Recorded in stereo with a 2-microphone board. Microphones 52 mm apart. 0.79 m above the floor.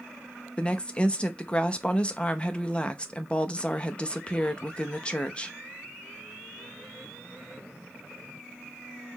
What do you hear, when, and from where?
0.6 s a woman speaking: 20° left (ahead or behind), 0.5 m